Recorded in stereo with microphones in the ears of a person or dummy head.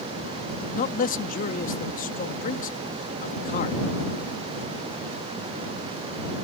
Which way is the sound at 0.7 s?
45° left (ahead or behind).